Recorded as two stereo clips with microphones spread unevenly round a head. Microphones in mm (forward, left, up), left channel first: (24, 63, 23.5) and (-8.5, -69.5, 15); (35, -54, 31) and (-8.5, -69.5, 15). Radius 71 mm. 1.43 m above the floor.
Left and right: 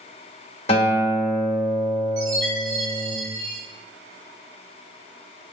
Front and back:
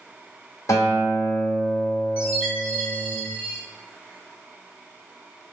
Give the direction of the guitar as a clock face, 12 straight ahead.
11 o'clock.